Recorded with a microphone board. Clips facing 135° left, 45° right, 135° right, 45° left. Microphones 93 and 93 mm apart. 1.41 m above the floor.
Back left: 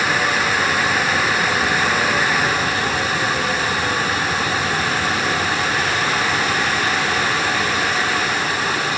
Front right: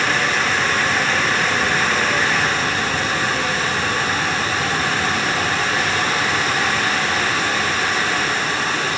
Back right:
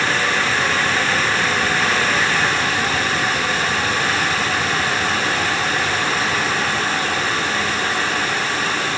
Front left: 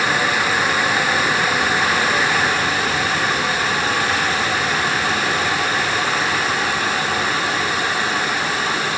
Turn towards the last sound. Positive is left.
No sound to turn to.